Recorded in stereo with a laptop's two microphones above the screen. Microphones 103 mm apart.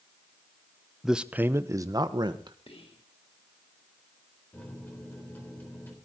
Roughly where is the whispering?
Left.